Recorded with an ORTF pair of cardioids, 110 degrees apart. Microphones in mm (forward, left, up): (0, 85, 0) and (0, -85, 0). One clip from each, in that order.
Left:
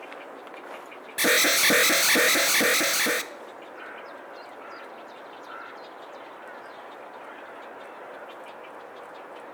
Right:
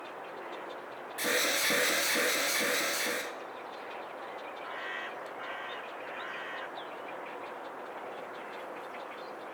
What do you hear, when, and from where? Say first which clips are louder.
1.2 s an alarm: left 9 dB; 55° left, 0.8 m